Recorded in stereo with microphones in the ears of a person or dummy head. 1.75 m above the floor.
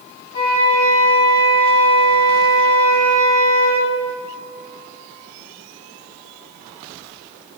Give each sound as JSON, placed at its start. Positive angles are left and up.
{"t": 0.3, "sound": "a flute", "side_deg": 25, "distance_m": 2.5}